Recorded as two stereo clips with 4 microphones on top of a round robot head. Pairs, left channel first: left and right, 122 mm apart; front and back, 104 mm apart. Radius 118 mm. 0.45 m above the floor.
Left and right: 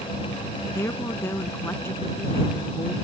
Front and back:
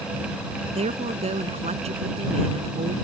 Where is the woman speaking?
165° left.